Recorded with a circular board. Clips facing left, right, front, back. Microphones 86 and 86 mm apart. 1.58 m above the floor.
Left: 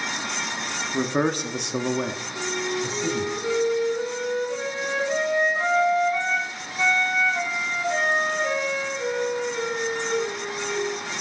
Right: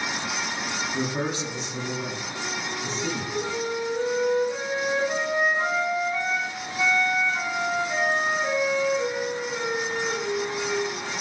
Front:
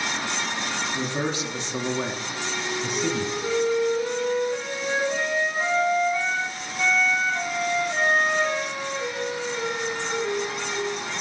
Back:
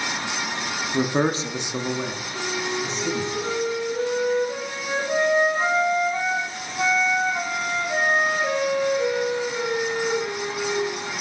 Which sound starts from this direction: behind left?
A man speaking, at 0.9 s.